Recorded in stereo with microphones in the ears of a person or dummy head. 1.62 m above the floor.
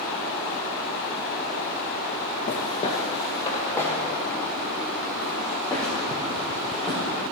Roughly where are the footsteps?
Left.